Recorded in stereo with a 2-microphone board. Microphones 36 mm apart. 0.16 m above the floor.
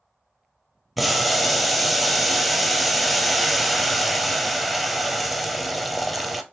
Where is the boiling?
Centre (ahead or behind), 0.5 m.